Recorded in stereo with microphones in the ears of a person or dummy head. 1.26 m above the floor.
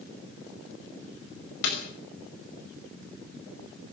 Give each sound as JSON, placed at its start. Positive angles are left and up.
{"t": 1.6, "sound": "a snare drum", "side_deg": 65, "distance_m": 5.5}